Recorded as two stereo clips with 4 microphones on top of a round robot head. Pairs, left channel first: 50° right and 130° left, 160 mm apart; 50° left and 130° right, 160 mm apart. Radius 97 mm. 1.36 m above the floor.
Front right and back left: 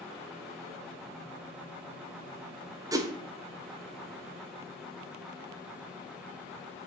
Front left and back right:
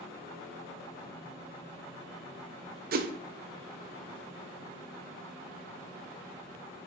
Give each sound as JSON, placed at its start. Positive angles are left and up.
{"t": 2.9, "sound": "a whoosh", "azimuth_deg": -160, "distance_m": 0.9}